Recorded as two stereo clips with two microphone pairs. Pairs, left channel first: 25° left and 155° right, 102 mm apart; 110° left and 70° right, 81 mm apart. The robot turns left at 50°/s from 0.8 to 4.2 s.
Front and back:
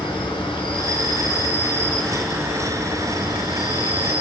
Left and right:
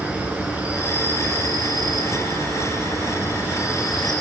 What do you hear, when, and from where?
0.0 s an insect: straight ahead, 4 m; by 4.2 s 170° right, 4 m